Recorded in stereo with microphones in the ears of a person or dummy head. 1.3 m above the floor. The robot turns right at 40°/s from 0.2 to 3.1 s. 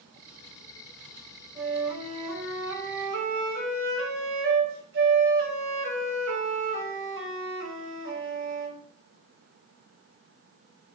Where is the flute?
145° right, 0.8 m; by 8.8 s 85° right, 0.8 m.